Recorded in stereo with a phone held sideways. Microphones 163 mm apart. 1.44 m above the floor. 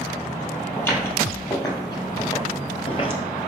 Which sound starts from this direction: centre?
Footsteps, at 0.8 s.